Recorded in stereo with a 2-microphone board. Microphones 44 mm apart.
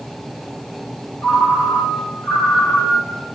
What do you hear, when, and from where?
1.2 s a ringtone: 75° left (ahead or behind), 4 m